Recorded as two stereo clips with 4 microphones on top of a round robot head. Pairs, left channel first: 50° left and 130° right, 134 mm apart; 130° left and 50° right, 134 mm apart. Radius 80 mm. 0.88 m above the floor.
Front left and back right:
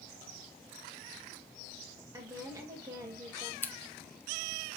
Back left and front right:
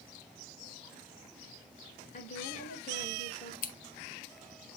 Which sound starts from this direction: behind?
A woman speaking, at 2.1 s.